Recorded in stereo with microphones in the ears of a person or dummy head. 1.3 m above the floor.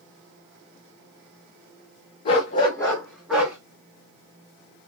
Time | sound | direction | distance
2.2 | a dog barking | 30° left (ahead or behind) | 0.7 m